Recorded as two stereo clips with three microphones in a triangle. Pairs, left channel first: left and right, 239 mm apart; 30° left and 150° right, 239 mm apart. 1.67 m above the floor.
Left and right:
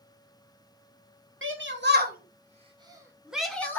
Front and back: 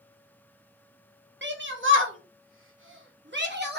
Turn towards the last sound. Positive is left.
turn(degrees=170)